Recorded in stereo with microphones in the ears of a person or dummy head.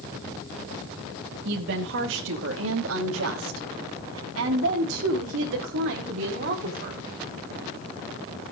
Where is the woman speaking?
60° right (ahead or behind), 3 m; by 7.0 s 55° right (ahead or behind), 5.5 m.